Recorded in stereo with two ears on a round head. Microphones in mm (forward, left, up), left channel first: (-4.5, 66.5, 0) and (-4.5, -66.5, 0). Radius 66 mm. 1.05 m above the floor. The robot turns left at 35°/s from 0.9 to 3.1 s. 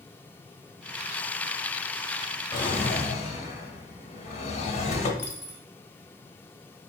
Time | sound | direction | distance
2.5 | a drawer | 35° left (ahead or behind) | 0.9 m
5.2 | a dropped coin | 15° left (ahead or behind) | 0.9 m